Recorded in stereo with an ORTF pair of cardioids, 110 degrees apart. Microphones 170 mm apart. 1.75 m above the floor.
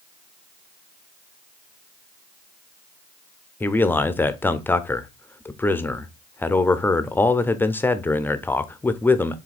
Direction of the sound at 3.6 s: 10° left.